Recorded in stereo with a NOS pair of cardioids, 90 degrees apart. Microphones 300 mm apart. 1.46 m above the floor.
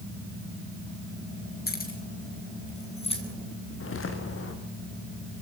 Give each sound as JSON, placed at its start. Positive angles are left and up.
{"t": 1.7, "sound": "keys jangling", "azimuth_deg": 30, "distance_m": 8.0}
{"t": 3.8, "sound": "footsteps", "azimuth_deg": 45, "distance_m": 6.0}